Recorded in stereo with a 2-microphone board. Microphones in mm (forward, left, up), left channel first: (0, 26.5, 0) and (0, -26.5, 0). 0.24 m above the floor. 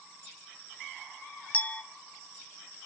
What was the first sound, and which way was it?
A clink, 30° left (ahead or behind).